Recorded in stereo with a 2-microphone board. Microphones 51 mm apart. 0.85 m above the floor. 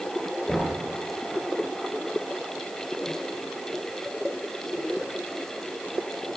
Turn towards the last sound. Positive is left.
turn(degrees=5)  # may be behind; listen again after turning